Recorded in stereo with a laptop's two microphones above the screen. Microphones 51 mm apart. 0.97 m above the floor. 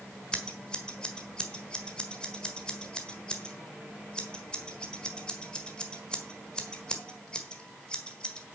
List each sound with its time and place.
0.3 s scissors: 15° left (ahead or behind), 1.4 m